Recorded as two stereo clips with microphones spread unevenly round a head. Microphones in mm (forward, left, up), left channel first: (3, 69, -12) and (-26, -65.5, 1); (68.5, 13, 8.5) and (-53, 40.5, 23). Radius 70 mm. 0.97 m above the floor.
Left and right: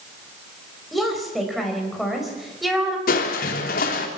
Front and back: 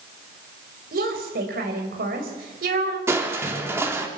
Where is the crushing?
95° left, 3 m.